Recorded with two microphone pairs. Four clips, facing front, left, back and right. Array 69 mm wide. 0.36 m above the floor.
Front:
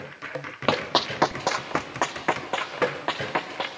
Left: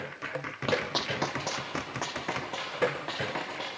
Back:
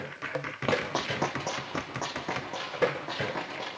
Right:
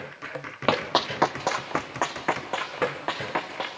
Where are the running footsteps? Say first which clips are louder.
Right 6 dB, front 5 dB; 55° right, 0.7 m; by 3.7 s 35° right, 2.5 m.